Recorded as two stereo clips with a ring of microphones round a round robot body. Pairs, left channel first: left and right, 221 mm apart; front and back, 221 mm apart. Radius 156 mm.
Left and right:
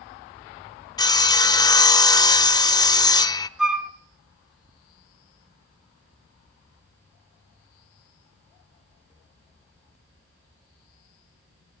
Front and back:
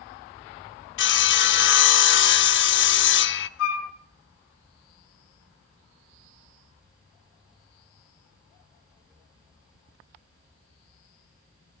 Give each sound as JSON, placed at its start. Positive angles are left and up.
{"t": 1.0, "sound": "sawing", "azimuth_deg": 20, "distance_m": 0.6}
{"t": 3.6, "sound": "a flute", "azimuth_deg": -5, "distance_m": 2.0}